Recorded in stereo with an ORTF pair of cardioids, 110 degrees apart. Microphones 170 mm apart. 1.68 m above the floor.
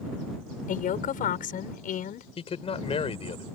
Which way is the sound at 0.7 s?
55° left.